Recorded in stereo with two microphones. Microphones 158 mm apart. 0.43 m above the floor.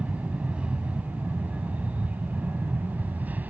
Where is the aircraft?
5° right (ahead or behind); by 3.5 s 10° right (ahead or behind).